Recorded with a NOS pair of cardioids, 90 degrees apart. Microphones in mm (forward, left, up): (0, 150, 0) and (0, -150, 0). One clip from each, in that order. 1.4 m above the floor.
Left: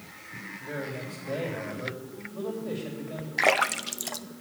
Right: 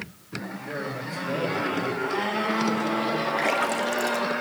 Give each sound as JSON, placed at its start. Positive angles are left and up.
{"t": 0.6, "sound": "a man speaking", "azimuth_deg": -15, "distance_m": 3.0}
{"t": 3.4, "sound": "a splash", "azimuth_deg": 30, "distance_m": 0.7}